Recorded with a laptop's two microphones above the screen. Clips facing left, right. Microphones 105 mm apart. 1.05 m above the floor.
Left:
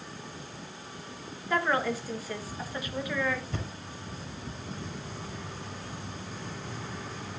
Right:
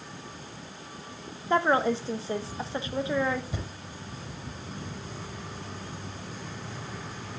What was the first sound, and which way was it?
A woman speaking, 30° right (ahead or behind).